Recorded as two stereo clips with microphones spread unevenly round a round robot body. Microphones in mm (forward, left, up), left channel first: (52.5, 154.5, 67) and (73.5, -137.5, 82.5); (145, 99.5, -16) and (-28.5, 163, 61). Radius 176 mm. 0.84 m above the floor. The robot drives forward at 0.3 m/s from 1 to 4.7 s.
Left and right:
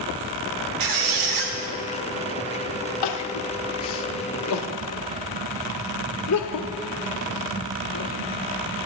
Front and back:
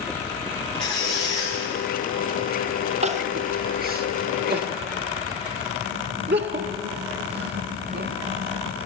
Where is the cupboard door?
No cupboard door in this recording.